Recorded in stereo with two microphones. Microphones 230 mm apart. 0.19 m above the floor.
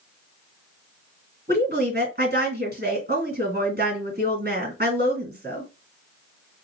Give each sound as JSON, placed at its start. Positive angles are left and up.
{"t": 1.5, "sound": "a woman speaking", "side_deg": -45, "distance_m": 2.0}